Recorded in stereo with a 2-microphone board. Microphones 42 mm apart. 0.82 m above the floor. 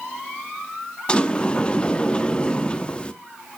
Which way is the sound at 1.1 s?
25° left (ahead or behind).